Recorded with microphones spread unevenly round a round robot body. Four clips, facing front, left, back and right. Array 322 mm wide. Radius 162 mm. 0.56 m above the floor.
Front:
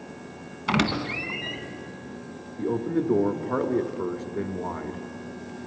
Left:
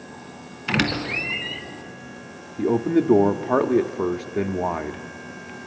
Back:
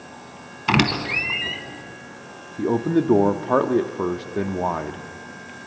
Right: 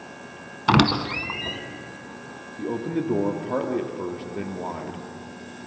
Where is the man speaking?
130° left, 0.8 m.